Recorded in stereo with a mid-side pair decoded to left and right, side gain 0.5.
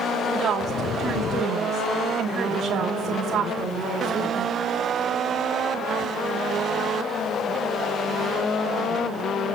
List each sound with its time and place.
0.3 s a woman speaking: 50° right, 3 m